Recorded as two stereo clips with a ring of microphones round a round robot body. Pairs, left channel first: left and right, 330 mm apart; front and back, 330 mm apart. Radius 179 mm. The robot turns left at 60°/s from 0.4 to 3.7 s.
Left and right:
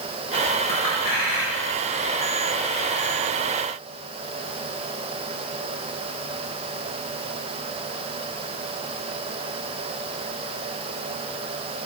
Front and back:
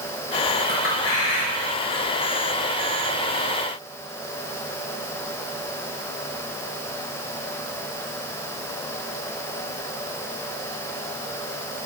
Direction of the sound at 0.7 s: 65° left.